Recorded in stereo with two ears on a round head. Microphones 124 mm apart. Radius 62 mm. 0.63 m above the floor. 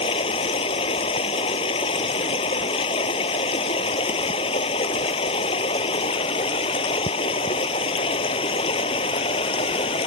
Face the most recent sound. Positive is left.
turn(degrees=40)  # may be behind; listen again after turning